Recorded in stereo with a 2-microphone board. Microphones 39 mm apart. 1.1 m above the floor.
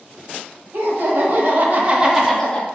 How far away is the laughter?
About 1.2 m.